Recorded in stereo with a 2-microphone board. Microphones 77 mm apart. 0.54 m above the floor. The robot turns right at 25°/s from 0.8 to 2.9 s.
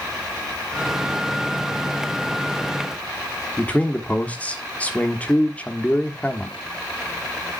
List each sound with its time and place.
3.6 s a man speaking: 20° left (ahead or behind), 1.2 m